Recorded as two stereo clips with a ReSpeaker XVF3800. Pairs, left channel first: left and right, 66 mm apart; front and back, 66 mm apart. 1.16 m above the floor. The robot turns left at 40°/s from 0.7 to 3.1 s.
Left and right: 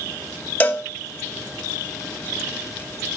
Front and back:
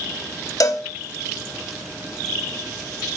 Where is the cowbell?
25° left, 1.2 m; by 0.8 s 15° left, 1.2 m.